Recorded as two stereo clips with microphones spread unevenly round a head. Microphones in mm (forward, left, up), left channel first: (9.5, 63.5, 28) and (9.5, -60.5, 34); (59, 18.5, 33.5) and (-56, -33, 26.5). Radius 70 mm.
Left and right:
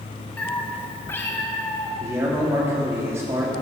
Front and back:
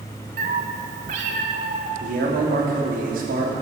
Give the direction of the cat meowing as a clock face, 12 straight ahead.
6 o'clock.